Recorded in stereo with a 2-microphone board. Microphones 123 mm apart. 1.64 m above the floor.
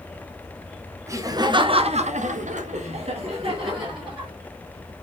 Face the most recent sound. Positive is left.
turn(degrees=-35)  # may be behind; listen again after turning